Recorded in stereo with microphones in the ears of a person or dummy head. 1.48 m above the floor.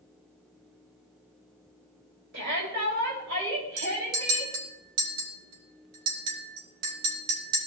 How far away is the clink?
About 3 m.